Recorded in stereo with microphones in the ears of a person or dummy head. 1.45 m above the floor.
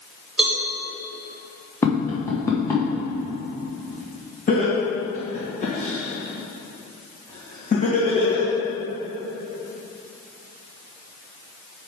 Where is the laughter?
45° left (ahead or behind), 2.5 m.